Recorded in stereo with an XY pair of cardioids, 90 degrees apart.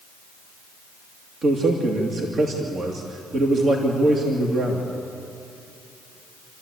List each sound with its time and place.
1.4 s a man speaking: 55° right, 2.5 m